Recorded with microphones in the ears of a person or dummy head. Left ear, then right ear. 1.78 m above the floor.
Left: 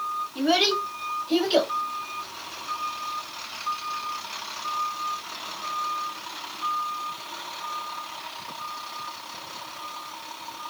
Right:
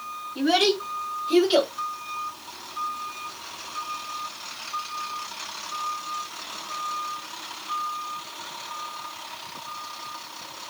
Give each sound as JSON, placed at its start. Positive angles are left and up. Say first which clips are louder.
{"t": 0.3, "sound": "a child speaking", "louder": "right 1 dB", "side_deg": 5, "distance_m": 1.5}